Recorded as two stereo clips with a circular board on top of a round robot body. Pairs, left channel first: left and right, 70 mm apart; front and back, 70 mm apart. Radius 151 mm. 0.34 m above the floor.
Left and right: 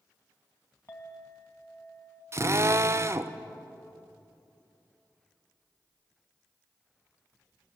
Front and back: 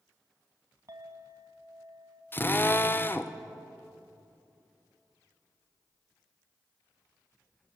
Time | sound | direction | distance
0.9 | a clink | 140° left | 2.5 m
2.3 | a drill | 50° right | 1.1 m